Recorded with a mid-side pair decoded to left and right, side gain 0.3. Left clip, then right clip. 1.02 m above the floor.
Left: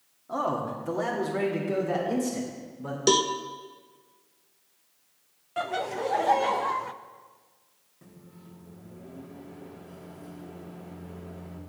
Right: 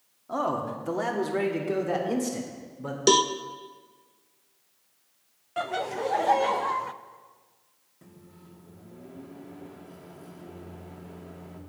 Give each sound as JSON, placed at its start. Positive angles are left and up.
{"t": 0.3, "sound": "a man speaking", "azimuth_deg": -25, "distance_m": 1.9}
{"t": 3.1, "sound": "a cowbell", "azimuth_deg": -30, "distance_m": 0.6}
{"t": 5.6, "sound": "laughter", "azimuth_deg": -10, "distance_m": 0.6}
{"t": 8.0, "sound": "a microwave", "azimuth_deg": -20, "distance_m": 1.9}